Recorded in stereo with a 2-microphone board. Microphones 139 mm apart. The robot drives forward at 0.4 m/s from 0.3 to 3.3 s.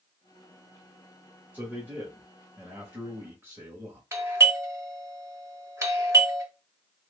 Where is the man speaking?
15° right (ahead or behind), 1.4 m; by 4.0 s 20° right (ahead or behind), 1.0 m.